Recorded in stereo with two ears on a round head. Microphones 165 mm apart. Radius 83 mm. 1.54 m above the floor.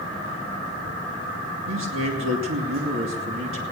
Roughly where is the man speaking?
Right.